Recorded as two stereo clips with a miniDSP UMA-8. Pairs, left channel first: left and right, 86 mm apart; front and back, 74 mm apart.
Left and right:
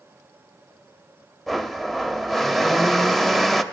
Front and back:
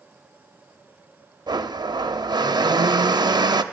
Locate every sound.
1.5 s a blender: 175° left, 0.5 m